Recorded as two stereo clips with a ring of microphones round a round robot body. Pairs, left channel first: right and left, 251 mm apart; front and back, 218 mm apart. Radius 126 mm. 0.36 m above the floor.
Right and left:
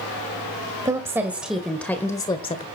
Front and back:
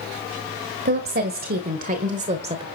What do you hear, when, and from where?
0.8 s a woman speaking: 160° left, 1.8 m; by 2.6 s 135° right, 1.4 m